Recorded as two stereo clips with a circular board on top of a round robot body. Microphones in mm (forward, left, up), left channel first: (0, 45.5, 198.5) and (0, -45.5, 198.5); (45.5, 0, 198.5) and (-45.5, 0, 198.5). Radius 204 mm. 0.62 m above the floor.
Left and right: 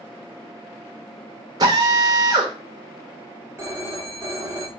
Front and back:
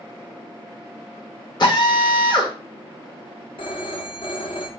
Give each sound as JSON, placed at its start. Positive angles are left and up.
{"t": 1.6, "sound": "a drill", "azimuth_deg": -40, "distance_m": 1.4}
{"t": 3.6, "sound": "a phone ringing", "azimuth_deg": -25, "distance_m": 1.3}